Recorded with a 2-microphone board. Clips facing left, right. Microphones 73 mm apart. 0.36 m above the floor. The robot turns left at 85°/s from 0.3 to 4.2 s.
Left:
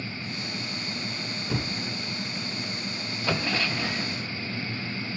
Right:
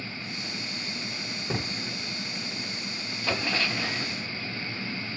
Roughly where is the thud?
Right.